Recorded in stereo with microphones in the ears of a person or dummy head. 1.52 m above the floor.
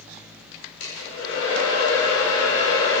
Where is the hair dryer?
90° left, 6 m.